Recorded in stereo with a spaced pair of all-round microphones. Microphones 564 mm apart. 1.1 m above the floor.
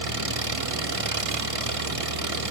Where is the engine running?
70° right (ahead or behind), 1.3 m.